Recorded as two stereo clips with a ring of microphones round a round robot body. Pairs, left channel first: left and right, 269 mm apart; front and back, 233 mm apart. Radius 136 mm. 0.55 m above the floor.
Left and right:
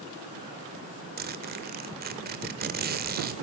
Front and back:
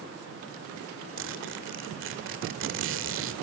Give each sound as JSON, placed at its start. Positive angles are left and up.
{"t": 1.2, "sound": "a zipper", "azimuth_deg": -145, "distance_m": 1.8}